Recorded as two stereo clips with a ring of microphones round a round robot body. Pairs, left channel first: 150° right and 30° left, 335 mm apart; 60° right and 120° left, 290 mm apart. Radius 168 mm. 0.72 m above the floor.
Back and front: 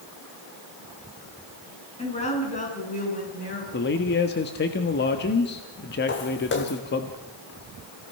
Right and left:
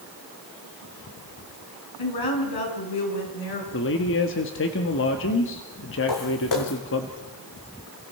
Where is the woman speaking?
75° right, 6.5 m; by 3.6 s 85° right, 8 m.